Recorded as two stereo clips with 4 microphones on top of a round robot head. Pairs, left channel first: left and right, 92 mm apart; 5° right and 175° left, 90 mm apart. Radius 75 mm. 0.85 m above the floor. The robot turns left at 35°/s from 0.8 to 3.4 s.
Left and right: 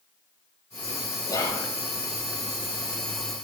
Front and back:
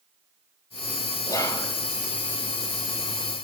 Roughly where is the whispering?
Ahead left.